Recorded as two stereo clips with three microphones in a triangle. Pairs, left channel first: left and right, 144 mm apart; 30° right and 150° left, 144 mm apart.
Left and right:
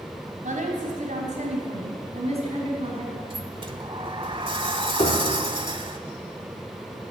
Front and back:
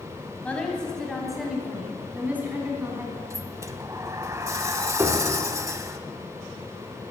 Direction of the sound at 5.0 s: 85° left.